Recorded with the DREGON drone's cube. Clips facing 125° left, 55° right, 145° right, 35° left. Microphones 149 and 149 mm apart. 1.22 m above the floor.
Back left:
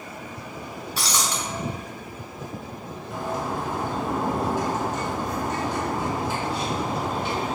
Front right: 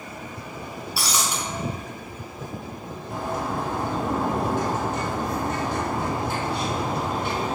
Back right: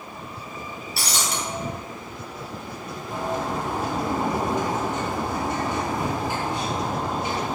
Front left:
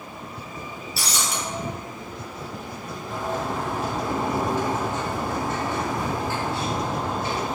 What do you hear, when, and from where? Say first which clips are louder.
1.0 s breaking glass: even, even; 135° right, 3.5 m
3.1 s a bird: front right 1 dB, back right 1 dB; 75° right, 3.5 m